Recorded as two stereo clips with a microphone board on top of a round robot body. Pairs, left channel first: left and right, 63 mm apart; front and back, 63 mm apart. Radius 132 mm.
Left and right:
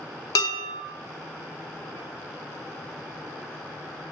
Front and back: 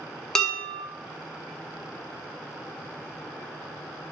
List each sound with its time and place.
0.3 s dishes clattering: 80° left, 1.5 m